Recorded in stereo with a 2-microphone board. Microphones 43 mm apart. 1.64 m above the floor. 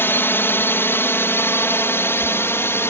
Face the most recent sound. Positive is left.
turn(degrees=65)  # may be behind; listen again after turning